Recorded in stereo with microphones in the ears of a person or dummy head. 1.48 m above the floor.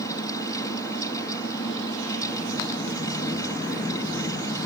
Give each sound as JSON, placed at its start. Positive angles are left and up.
{"t": 0.0, "sound": "a fan", "side_deg": 15}